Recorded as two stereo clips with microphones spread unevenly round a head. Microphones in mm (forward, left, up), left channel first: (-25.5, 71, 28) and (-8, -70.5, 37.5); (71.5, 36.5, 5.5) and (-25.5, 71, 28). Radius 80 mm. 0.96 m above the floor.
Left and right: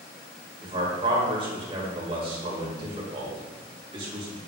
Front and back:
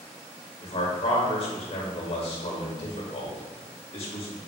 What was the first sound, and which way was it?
A man speaking, 30° right.